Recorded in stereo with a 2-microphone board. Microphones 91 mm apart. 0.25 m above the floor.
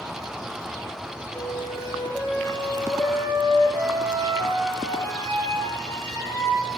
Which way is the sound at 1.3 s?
35° left (ahead or behind).